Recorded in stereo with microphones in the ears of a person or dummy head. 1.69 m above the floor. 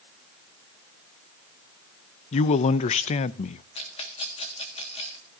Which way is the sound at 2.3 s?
35° left (ahead or behind).